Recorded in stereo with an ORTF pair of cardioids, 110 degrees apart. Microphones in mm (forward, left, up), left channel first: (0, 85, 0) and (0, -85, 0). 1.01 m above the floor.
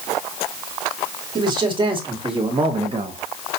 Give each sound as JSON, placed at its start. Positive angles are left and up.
{"t": 1.4, "sound": "a man speaking", "azimuth_deg": -30, "distance_m": 2.5}